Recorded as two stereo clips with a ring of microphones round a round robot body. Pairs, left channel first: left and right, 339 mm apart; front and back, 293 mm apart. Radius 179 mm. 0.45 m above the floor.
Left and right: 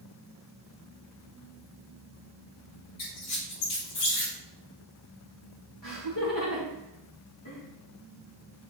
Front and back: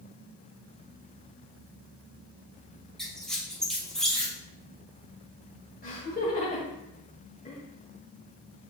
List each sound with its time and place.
3.0 s a squeak: 90° left, 3.5 m
5.8 s laughter: 55° left, 2.5 m